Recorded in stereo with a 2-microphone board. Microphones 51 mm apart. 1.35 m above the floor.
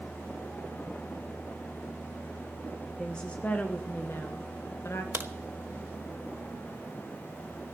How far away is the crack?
About 0.9 m.